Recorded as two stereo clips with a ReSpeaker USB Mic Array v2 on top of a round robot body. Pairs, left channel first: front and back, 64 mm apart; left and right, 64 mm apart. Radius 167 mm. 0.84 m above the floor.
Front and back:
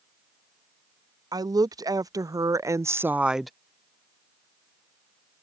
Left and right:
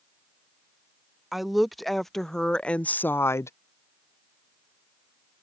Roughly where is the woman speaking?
Behind.